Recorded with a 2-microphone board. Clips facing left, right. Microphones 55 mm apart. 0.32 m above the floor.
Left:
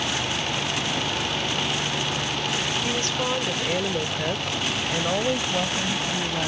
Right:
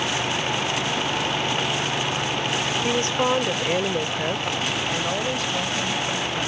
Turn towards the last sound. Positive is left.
turn(degrees=25)  # may be behind; listen again after turning